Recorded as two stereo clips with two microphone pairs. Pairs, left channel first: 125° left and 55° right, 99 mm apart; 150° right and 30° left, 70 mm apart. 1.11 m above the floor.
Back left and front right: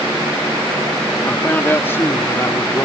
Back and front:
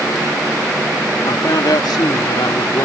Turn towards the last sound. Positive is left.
turn(degrees=-175)